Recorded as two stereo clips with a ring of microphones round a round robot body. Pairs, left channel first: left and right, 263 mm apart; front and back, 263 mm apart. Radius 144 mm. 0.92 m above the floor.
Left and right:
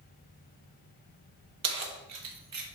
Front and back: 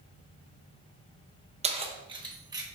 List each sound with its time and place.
1.6 s keys jangling: 115° right, 1.0 m; by 2.6 s 105° right, 1.5 m